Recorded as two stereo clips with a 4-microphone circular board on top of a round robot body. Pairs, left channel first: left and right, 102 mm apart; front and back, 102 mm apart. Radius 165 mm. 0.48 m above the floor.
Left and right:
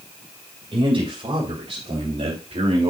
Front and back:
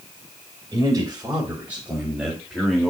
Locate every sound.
0.7 s a man speaking: 125° right, 4.5 m; by 2.9 s 85° right, 2.5 m